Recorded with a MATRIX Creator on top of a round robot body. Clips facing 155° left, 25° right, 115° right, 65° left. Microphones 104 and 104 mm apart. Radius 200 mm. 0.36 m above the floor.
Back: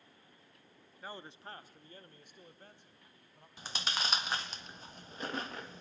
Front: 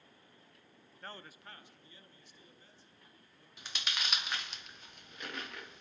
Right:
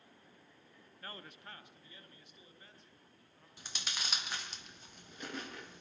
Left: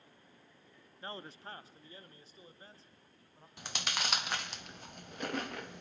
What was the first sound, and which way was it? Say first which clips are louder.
A man speaking: back 3 dB, left 5 dB; 80° left.